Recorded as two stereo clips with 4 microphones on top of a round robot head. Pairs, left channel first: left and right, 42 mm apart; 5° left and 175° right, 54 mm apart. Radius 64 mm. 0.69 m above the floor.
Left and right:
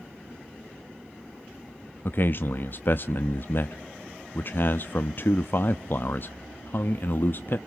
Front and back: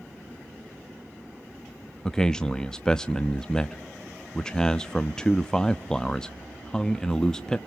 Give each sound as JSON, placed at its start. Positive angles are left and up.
{"t": 2.0, "sound": "a man speaking", "azimuth_deg": 80, "distance_m": 0.7}